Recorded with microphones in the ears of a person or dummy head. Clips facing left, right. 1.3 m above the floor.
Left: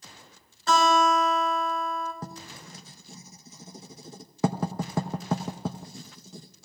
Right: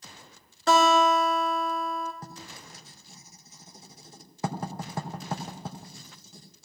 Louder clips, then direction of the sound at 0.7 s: Right 1 dB; 60° right (ahead or behind).